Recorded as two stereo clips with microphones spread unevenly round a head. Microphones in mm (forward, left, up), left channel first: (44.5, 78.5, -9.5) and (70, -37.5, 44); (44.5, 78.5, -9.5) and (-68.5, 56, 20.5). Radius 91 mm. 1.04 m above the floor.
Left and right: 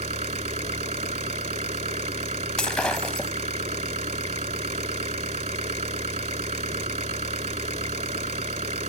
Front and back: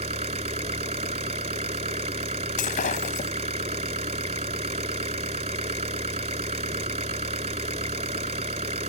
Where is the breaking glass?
10° left.